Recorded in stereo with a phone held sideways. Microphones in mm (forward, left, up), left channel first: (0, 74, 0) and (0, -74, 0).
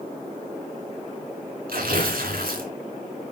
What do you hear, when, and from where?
1.7 s tearing paper: 85° right, 3 m